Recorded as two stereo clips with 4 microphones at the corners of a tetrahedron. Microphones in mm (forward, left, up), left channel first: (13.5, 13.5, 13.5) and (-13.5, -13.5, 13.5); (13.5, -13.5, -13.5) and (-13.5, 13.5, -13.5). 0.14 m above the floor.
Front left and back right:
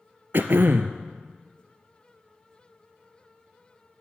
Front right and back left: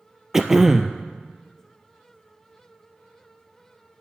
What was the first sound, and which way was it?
Throat clearing, 150° right.